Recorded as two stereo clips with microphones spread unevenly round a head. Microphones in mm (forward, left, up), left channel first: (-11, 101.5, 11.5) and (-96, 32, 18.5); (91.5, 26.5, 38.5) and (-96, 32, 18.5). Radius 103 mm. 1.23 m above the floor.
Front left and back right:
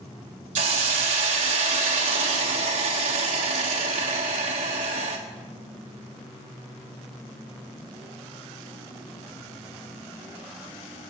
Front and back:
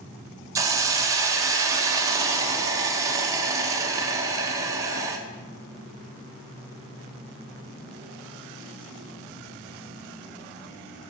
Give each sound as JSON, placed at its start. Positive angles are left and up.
{"t": 0.6, "sound": "a hiss", "azimuth_deg": -110, "distance_m": 1.2}